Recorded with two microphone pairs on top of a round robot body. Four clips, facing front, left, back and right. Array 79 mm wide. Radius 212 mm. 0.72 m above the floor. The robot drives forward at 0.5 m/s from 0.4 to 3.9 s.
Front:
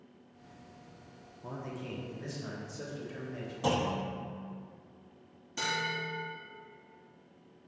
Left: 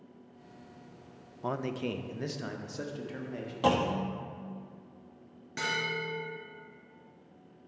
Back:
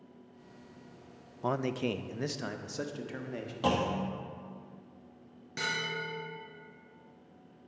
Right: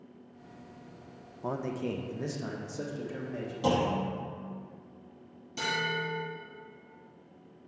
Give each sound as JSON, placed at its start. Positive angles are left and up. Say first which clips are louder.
{"t": 1.4, "sound": "a man speaking", "louder": "even, back 10 dB", "azimuth_deg": 170, "distance_m": 0.5}
{"t": 3.6, "sound": "a clunk", "louder": "even, back 1 dB", "azimuth_deg": 105, "distance_m": 1.0}
{"t": 5.6, "sound": "a bell", "louder": "right 2 dB, front 1 dB", "azimuth_deg": 120, "distance_m": 2.5}